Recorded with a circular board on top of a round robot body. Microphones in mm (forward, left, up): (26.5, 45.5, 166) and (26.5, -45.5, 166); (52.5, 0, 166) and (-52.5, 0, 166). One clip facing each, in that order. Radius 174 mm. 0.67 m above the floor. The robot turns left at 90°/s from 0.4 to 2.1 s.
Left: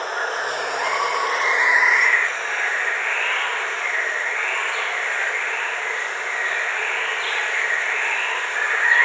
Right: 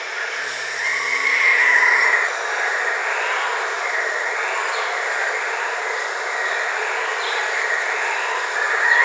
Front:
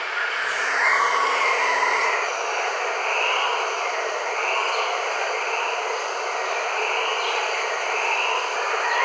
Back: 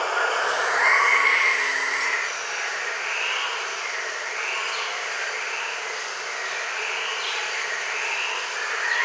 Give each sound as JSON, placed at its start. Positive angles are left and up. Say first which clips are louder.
{"t": 0.0, "sound": "running water", "louder": "left 3 dB, back 4 dB", "azimuth_deg": 130, "distance_m": 1.1}